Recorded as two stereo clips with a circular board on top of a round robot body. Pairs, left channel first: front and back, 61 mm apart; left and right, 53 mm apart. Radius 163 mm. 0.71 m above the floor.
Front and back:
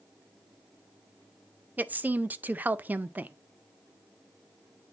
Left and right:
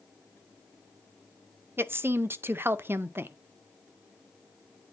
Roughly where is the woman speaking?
Behind right.